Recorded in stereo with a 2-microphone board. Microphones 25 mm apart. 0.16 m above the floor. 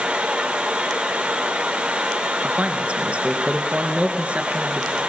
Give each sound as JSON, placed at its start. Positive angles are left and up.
{"t": 0.0, "sound": "running water", "side_deg": -40, "distance_m": 5.0}
{"t": 2.4, "sound": "a man speaking", "side_deg": -55, "distance_m": 2.5}